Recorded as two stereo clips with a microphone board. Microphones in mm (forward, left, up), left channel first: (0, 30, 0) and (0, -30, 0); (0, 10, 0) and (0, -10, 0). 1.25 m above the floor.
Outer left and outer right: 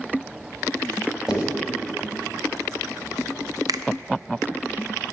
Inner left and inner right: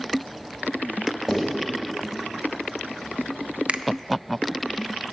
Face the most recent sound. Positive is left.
turn(degrees=-80)